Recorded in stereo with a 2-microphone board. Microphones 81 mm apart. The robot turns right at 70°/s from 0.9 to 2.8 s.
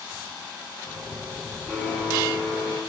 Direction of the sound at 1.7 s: Straight ahead.